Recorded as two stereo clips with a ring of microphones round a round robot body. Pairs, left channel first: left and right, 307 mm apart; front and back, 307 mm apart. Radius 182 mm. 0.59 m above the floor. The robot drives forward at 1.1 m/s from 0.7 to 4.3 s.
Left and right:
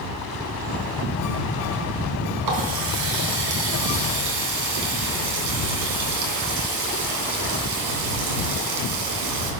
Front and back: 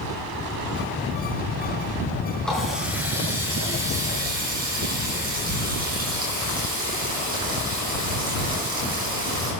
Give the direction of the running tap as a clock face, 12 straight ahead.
3 o'clock.